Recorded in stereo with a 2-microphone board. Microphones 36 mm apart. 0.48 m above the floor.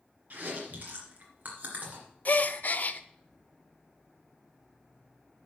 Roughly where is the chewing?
Right.